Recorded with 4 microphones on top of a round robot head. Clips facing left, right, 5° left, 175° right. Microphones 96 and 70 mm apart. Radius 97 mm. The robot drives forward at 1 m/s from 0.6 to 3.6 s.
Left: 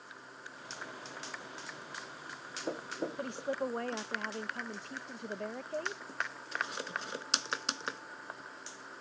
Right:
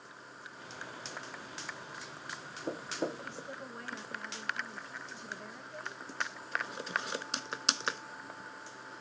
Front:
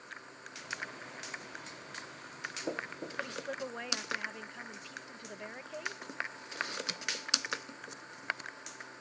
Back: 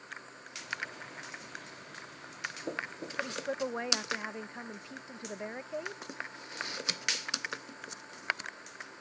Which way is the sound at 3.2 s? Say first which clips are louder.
Left 8 dB, back 5 dB; 110° left.